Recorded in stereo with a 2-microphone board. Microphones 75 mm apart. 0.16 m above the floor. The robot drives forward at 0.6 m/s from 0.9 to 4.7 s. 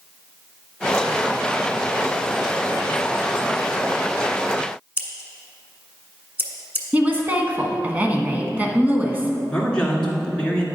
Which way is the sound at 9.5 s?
15° left (ahead or behind).